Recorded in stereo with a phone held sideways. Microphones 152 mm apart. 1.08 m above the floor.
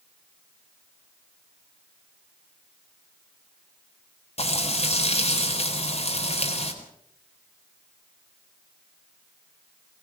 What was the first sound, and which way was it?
Frying, 45° left (ahead or behind).